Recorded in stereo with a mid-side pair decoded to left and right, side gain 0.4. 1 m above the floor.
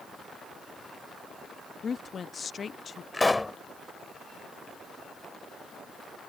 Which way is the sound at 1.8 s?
45° left.